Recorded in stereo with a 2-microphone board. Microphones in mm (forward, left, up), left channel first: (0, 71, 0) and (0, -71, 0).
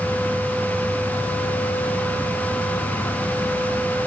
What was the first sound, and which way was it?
Only background noise.